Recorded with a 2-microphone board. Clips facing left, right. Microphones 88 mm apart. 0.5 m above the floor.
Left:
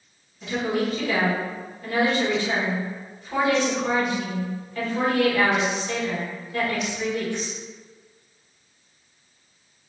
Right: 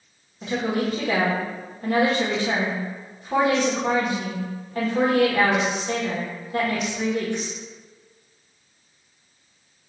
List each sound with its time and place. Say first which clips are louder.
0.4 s a woman speaking: right 1 dB; 40° right (ahead or behind), 1.6 m